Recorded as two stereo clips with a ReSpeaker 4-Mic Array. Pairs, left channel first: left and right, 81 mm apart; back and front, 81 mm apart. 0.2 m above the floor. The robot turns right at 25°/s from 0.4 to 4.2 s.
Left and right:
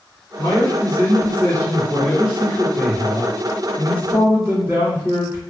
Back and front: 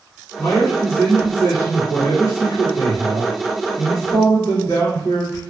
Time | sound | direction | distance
0.4 | a man speaking | 120° left | 1.9 m